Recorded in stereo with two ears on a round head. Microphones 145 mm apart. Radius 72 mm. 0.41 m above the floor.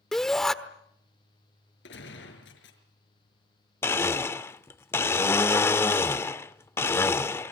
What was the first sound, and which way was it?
A shout, 5° left (ahead or behind).